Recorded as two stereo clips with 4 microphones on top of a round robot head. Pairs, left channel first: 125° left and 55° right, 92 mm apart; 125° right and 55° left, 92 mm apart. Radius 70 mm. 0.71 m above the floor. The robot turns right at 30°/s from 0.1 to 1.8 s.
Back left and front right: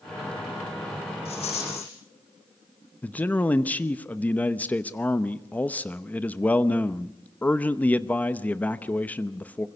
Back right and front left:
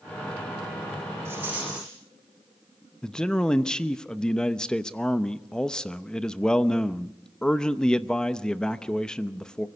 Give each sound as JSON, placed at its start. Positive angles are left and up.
{"t": 1.2, "sound": "a rattle", "azimuth_deg": 120, "distance_m": 9.0}
{"t": 3.0, "sound": "a man speaking", "azimuth_deg": 165, "distance_m": 0.9}